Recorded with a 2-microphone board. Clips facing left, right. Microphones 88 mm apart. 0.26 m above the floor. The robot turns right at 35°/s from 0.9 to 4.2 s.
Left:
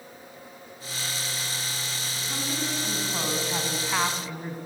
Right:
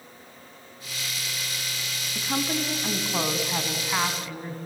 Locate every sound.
2.1 s a woman speaking: 65° right, 2.5 m; by 4.6 s 10° left, 2.5 m